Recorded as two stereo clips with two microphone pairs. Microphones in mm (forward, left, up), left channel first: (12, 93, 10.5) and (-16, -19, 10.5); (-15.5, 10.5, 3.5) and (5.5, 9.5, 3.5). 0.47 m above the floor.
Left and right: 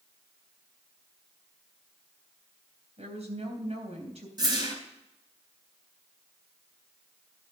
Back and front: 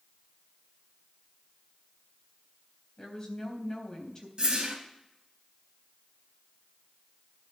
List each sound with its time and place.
3.0 s a woman speaking: 120° right, 3.5 m
4.4 s a whoosh: 50° right, 3.5 m